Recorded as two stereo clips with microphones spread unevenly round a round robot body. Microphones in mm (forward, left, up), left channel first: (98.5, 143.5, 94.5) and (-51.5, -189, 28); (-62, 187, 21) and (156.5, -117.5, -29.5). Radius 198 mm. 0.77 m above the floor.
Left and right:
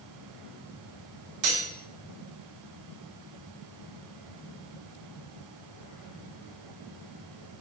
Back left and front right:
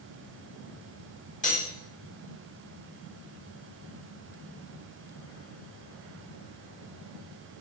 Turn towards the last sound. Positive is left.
turn(degrees=-160)